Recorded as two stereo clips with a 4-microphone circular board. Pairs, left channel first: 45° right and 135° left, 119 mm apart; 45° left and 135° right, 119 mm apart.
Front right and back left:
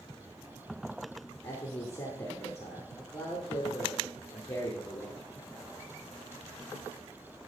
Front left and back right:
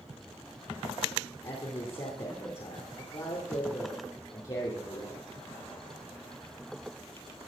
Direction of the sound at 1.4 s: 15° left.